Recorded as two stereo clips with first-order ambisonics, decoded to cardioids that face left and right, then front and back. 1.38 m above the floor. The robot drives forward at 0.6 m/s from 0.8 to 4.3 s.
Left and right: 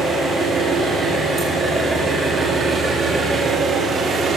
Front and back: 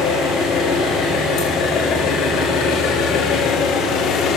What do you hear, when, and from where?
0.0 s an engine running: 15° right, 3.5 m; by 4.4 s 35° right, 1.6 m